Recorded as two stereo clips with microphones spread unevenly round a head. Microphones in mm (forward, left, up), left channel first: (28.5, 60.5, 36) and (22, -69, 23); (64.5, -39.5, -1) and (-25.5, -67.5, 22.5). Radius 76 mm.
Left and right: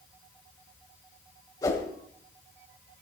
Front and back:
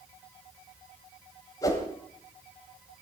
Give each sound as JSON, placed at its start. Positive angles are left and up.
{"t": 1.6, "sound": "a whoosh", "azimuth_deg": 75, "distance_m": 1.6}